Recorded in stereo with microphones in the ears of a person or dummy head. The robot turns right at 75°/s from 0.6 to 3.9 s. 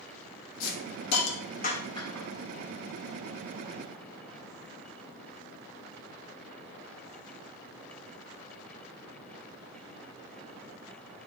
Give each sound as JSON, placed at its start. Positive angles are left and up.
{"t": 0.6, "sound": "a hiss", "side_deg": 55, "distance_m": 1.1}